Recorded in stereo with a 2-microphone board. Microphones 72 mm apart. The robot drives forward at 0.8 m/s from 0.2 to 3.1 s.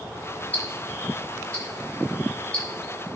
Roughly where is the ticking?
Left.